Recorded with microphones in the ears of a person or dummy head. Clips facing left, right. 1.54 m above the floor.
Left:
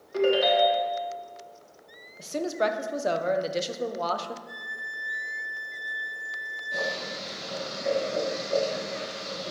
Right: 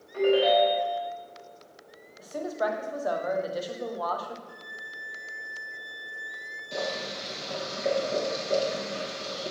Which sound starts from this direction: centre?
A violin, at 4.5 s.